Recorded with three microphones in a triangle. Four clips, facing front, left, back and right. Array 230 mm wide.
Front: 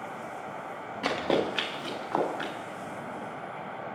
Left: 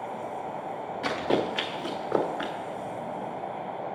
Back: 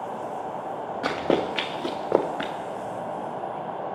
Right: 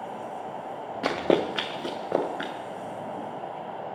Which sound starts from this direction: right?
Running footsteps, at 1.0 s.